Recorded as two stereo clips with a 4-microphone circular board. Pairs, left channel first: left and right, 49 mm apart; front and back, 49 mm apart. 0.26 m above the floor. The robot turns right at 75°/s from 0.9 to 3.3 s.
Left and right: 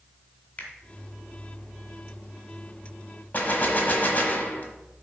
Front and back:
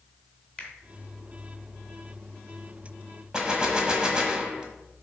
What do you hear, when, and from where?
0.6 s a finger snap: 50° left, 1.6 m
3.3 s a gunshot: 115° left, 1.1 m